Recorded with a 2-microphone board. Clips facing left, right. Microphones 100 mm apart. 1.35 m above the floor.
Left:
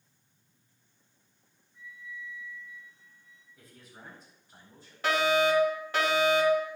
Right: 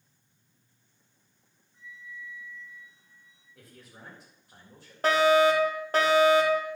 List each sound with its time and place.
1.7 s a flute: 35° right (ahead or behind), 4.5 m
3.5 s a man speaking: 80° right, 7 m
5.0 s a fire alarm: 40° right (ahead or behind), 3.5 m